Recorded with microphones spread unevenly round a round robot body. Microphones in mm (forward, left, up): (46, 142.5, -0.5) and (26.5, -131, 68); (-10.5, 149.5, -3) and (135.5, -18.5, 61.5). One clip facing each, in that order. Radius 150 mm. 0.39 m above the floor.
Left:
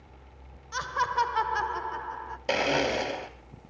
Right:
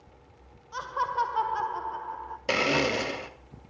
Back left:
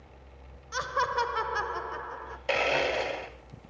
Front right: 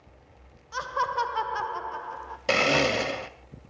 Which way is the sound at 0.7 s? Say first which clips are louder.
Left 1 dB, back left 1 dB; 90° left.